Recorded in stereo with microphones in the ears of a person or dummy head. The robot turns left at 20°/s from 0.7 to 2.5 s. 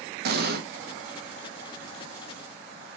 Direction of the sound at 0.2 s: 60° right (ahead or behind).